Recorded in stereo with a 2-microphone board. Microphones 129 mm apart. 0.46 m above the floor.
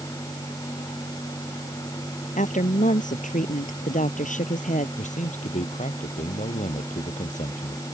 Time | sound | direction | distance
2.4 | a woman speaking | 75° left (ahead or behind) | ?
5.0 | a man speaking | 70° left (ahead or behind) | ?